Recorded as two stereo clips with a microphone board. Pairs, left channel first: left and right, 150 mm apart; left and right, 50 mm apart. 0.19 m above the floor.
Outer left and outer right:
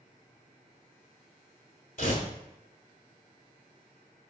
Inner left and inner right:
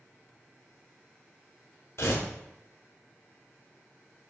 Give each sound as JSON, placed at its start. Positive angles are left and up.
{"t": 2.0, "sound": "tearing paper", "side_deg": 65, "distance_m": 0.8}